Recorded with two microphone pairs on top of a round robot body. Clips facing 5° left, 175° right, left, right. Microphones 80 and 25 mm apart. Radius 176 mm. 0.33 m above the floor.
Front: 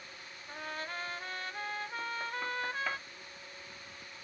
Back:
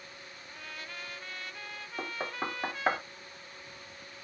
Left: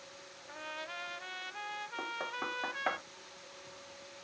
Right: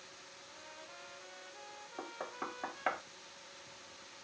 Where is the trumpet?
60° left.